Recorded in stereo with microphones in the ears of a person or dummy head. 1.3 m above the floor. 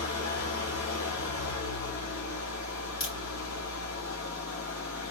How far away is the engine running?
About 1.8 m.